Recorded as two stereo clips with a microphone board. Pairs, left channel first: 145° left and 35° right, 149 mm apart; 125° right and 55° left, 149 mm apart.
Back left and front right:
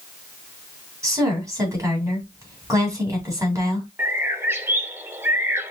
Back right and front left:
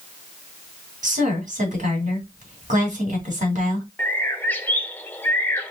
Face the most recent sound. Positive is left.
turn(degrees=-75)